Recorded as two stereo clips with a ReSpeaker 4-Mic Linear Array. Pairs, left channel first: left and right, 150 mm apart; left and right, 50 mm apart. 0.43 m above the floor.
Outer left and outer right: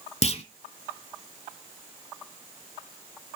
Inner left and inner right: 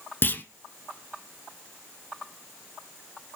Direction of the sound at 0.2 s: 45° left (ahead or behind).